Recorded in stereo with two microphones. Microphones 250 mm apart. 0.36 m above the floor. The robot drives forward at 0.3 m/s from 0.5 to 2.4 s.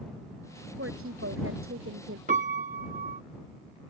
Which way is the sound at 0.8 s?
55° right (ahead or behind).